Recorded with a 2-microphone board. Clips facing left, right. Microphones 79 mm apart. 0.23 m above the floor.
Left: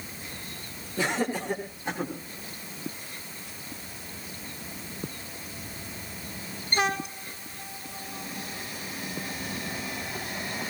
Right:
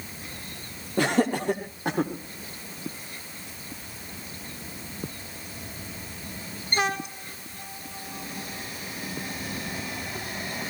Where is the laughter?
65° right (ahead or behind), 6 m.